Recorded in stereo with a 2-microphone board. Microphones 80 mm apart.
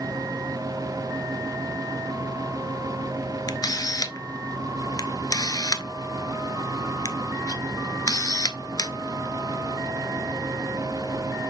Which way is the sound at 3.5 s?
50° left (ahead or behind).